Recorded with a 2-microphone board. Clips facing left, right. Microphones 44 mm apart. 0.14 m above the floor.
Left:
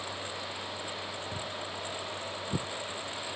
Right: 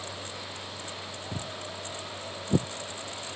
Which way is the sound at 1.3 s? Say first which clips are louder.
Even; 35° right (ahead or behind).